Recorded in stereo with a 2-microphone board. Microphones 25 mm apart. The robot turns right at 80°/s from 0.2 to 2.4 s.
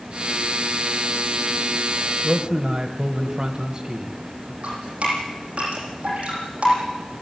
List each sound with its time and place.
2.2 s a man speaking: 40° right (ahead or behind), 1.5 m; by 4.5 s 30° right (ahead or behind), 1.5 m
4.6 s dripping: 55° right (ahead or behind), 10 m